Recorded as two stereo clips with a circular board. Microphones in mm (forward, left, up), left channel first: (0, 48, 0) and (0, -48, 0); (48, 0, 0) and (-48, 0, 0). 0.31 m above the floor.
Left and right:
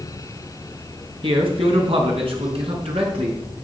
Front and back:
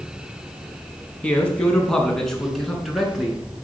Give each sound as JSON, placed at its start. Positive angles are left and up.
{"t": 1.2, "sound": "a man speaking", "azimuth_deg": -75, "distance_m": 3.5}